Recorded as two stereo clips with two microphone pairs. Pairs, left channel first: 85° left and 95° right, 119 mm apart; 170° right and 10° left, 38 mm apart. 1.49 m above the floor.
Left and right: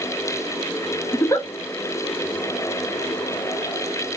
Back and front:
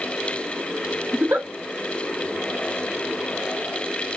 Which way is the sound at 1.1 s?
20° left.